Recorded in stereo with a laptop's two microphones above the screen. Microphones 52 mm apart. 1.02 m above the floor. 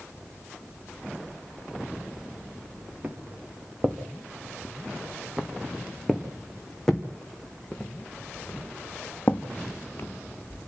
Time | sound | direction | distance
3.0 | footsteps | 30° right (ahead or behind) | 4 m